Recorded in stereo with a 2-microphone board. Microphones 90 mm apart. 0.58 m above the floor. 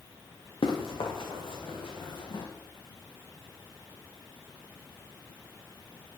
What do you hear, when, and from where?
0.6 s running footsteps: 80° left, 3 m; by 2.5 s 65° left (ahead or behind), 3.5 m